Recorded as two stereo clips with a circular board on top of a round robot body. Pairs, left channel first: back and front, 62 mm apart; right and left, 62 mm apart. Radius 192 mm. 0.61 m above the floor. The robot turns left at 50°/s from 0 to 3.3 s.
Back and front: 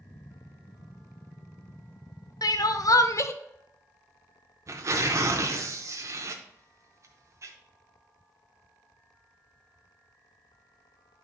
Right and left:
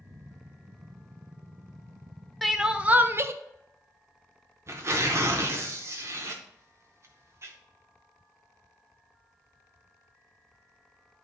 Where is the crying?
Straight behind, 0.7 m; by 3.3 s 135° left, 0.7 m.